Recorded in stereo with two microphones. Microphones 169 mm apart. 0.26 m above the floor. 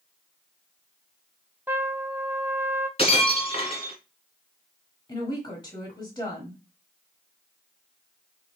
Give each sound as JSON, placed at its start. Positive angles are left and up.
{"t": 1.7, "sound": "a trumpet", "side_deg": -15, "distance_m": 0.5}
{"t": 3.0, "sound": "breaking glass", "side_deg": 35, "distance_m": 1.6}
{"t": 5.1, "sound": "a woman speaking", "side_deg": 25, "distance_m": 1.1}